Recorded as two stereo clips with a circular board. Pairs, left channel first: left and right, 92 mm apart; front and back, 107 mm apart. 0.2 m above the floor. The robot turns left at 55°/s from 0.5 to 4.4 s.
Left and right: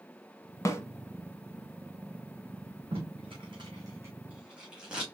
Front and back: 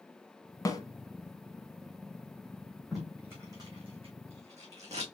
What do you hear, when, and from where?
0.7 s a snare drum: 50° left, 1.0 m; by 0.8 s 40° left, 1.0 m
2.9 s tape being pulled: 90° right, 2.5 m; by 5.0 s 170° right, 2.5 m